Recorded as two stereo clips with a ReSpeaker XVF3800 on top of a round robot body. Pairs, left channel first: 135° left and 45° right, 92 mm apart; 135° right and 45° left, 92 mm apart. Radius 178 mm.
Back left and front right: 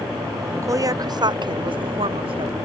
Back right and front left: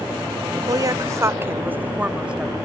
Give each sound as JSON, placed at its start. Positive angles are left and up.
{"t": 0.6, "sound": "a woman speaking", "azimuth_deg": 5}